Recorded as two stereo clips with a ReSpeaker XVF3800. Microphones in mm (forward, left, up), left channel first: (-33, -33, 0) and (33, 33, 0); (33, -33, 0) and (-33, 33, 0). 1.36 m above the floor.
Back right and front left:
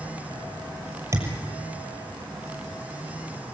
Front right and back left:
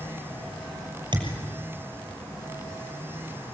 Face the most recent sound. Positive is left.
turn(degrees=100)